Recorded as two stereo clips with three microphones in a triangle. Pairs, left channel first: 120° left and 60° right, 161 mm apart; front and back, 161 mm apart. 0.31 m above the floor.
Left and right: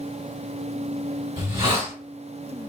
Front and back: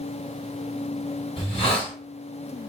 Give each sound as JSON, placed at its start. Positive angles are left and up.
{"t": 1.4, "sound": "a hiss", "azimuth_deg": -30, "distance_m": 2.0}